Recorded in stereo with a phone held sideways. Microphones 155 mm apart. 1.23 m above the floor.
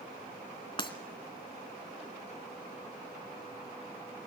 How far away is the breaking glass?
About 2.5 m.